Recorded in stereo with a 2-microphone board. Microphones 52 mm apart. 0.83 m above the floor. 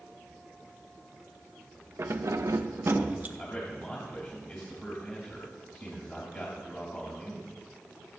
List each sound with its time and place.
2.0 s keys jangling: 55° right (ahead or behind), 0.7 m; by 3.3 s 30° right (ahead or behind), 0.8 m
3.4 s a man speaking: 30° left (ahead or behind), 2.0 m